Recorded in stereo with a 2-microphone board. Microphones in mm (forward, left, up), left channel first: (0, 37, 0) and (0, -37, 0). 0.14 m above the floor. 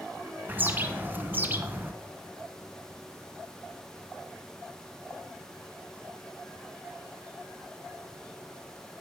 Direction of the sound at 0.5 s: 25° right (ahead or behind).